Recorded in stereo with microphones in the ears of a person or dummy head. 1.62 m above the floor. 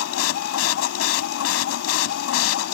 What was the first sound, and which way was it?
A machine running, 85° left.